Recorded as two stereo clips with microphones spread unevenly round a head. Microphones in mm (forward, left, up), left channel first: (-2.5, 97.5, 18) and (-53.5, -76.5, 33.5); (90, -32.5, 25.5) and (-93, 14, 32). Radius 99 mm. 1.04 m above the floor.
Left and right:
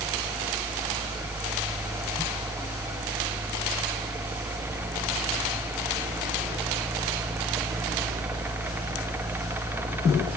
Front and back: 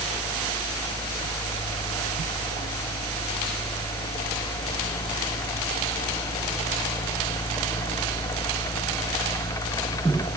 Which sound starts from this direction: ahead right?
A fan, at 0.0 s.